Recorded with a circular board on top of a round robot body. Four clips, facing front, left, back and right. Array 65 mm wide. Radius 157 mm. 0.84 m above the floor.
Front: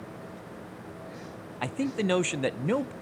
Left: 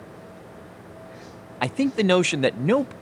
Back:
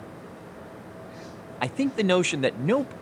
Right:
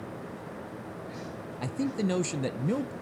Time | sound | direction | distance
1.6 | a man speaking | 110° left | 0.6 m